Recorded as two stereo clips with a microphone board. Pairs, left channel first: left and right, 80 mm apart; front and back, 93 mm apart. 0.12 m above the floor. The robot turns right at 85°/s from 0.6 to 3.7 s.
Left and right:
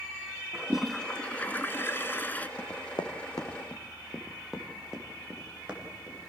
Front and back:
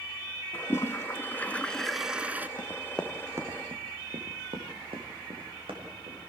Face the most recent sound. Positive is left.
turn(degrees=-165)